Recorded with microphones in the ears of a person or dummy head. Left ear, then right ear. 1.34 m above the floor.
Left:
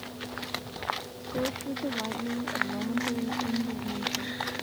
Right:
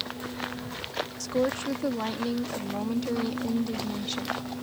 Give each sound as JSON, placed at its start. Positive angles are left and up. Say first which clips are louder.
{"t": 1.2, "sound": "a woman speaking", "louder": "right 6 dB", "side_deg": -85}